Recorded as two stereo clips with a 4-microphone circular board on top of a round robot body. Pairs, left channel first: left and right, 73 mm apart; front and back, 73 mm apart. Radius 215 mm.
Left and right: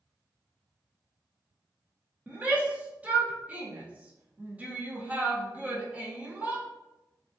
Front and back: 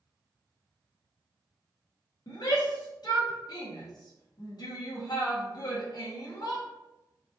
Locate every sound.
2.3 s a shout: 20° right, 1.5 m